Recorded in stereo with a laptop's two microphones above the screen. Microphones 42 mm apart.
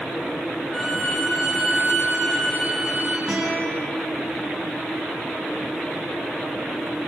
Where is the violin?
5° left (ahead or behind), 4.5 m.